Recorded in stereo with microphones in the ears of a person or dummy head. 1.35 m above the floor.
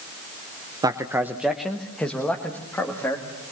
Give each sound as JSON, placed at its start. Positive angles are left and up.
{"t": 0.8, "sound": "a man speaking", "side_deg": -25, "distance_m": 0.6}